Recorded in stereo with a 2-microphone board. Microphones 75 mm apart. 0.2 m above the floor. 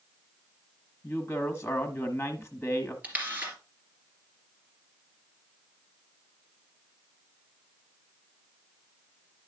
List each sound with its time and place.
1.0 s a woman speaking: 25° left (ahead or behind), 1.2 m
3.0 s a camera shutter: 20° right (ahead or behind), 3 m